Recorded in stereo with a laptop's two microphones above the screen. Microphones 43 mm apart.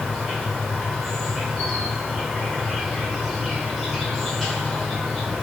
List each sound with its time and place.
0.0 s an insect: centre (ahead or behind), 1.2 m